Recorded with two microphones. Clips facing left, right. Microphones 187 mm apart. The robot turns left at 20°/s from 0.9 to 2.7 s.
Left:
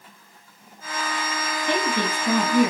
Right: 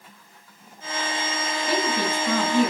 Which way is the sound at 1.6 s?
20° left (ahead or behind).